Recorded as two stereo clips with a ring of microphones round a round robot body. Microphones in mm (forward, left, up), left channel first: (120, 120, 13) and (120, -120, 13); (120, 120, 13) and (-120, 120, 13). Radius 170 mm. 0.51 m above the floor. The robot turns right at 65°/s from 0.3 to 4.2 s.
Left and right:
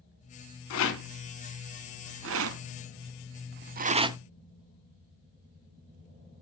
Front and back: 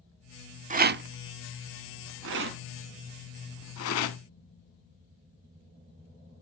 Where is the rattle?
120° left, 0.6 m; by 4.2 s 10° right, 0.6 m.